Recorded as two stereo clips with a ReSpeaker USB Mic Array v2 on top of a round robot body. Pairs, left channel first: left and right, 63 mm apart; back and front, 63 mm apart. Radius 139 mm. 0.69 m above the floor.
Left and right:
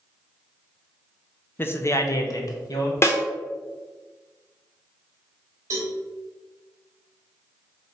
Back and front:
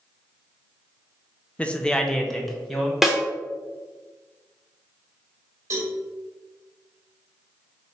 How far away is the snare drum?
About 1.0 m.